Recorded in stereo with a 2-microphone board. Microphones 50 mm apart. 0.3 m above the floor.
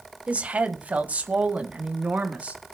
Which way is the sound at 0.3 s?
25° right (ahead or behind).